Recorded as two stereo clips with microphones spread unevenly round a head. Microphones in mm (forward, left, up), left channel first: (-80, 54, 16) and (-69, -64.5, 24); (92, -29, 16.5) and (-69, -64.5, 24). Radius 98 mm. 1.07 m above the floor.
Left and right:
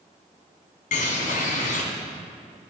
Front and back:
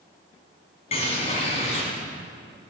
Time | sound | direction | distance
0.9 | a bird | 75° left | 2.5 m